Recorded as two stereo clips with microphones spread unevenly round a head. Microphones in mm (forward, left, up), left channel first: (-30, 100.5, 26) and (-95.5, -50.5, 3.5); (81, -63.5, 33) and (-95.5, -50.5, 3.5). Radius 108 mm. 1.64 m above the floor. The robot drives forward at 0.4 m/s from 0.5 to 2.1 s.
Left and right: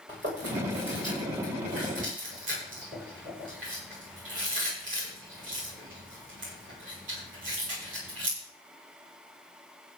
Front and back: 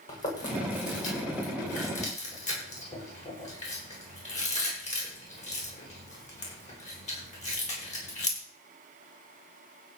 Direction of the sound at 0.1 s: 50° right.